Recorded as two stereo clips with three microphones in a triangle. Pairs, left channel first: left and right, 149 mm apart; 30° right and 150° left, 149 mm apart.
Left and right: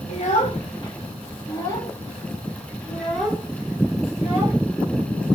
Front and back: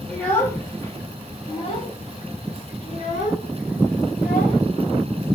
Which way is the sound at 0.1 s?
50° left.